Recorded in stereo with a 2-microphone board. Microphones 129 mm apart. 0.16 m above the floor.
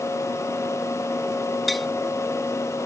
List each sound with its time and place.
1.7 s tapping: centre (ahead or behind)